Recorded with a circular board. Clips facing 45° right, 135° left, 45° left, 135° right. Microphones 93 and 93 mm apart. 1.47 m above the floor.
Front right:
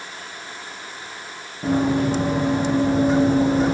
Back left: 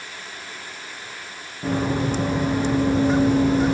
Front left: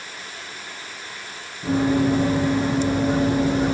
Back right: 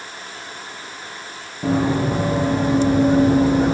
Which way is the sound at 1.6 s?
115° right.